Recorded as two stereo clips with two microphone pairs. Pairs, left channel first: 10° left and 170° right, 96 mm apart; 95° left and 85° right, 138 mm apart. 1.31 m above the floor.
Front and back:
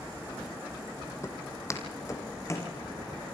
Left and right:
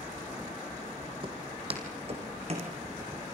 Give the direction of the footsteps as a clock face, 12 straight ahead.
1 o'clock.